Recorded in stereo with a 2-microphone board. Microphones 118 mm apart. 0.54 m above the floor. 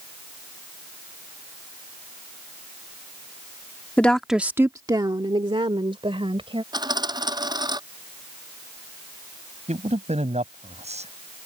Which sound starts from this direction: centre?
A woman speaking, at 4.0 s.